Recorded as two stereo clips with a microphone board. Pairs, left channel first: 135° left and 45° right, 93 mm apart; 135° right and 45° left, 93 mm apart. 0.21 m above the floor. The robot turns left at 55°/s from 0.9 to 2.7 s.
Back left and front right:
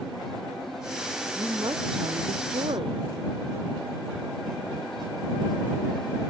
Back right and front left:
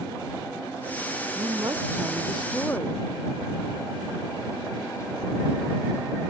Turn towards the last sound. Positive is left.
turn(degrees=-65)